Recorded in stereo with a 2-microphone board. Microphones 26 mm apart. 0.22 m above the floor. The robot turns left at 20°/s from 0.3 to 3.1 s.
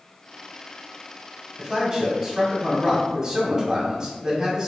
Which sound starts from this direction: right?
A man speaking, at 1.6 s.